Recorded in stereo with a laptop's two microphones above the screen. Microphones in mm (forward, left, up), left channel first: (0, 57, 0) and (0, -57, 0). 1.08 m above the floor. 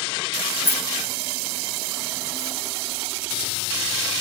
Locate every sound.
0.7 s keys jangling: 55° left (ahead or behind), 1.2 m; by 2.6 s 65° left (ahead or behind), 1.1 m